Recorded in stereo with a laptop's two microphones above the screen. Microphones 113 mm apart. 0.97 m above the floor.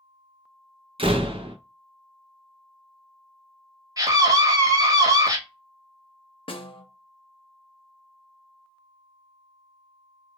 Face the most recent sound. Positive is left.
turn(degrees=50)  # may be behind; listen again after turning